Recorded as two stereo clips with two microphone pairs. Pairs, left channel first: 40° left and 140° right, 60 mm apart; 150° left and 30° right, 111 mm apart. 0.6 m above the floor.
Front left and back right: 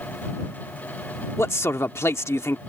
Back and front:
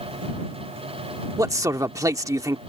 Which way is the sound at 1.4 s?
20° left.